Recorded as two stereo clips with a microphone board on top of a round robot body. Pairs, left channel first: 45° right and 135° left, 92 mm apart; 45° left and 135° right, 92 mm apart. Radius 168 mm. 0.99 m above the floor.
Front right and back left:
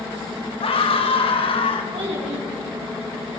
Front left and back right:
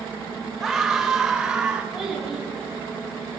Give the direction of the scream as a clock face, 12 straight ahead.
2 o'clock.